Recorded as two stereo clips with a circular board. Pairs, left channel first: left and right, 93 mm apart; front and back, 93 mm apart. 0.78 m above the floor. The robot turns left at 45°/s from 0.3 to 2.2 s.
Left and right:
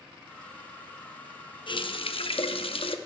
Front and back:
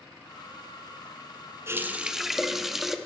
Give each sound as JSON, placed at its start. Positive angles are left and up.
{"t": 1.7, "sound": "a running tap", "azimuth_deg": 120, "distance_m": 0.5}